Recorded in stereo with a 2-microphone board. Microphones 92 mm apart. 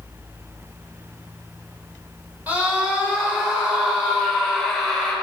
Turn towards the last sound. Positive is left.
turn(degrees=0)  # may be behind; listen again after turning